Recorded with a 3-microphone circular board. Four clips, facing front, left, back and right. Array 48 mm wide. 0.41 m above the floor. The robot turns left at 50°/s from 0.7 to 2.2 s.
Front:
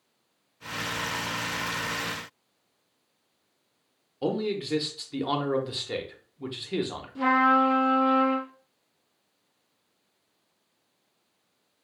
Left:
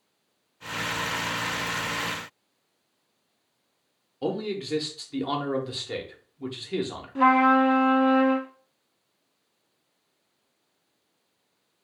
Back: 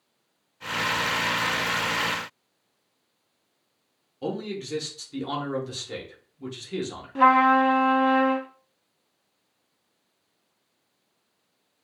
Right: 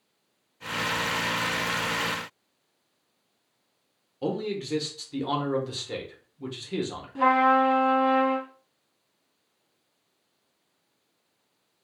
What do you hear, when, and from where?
4.2 s a man speaking: 20° left, 0.8 m
7.2 s a trumpet: 165° left, 0.7 m